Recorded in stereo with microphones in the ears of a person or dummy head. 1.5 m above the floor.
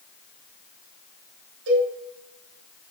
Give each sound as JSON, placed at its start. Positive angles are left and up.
{"t": 1.7, "sound": "a cowbell", "side_deg": -65, "distance_m": 5.0}